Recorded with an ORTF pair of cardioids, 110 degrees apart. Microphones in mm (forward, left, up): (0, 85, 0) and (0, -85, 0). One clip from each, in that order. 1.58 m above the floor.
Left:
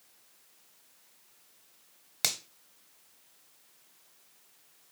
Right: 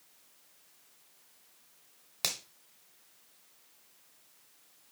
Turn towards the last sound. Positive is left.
turn(degrees=20)